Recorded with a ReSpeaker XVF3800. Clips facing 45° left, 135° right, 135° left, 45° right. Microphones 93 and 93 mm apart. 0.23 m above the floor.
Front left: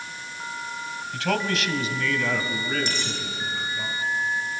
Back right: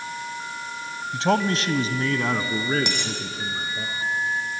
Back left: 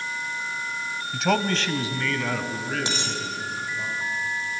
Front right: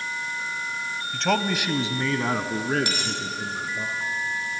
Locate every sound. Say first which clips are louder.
1.1 s a man speaking: back right 4 dB, back left 1 dB; 155° right, 1.1 m; by 3.9 s 80° right, 3 m
2.9 s a dropped coin: back right 1 dB, even; 160° right, 4 m